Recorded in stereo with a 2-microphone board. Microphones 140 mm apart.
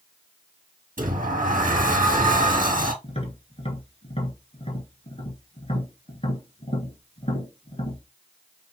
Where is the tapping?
45° left (ahead or behind), 2.5 m.